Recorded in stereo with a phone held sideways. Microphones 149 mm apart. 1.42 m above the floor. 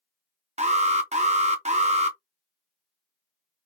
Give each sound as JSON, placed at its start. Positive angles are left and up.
{"t": 0.6, "sound": "an alarm", "side_deg": -50, "distance_m": 0.5}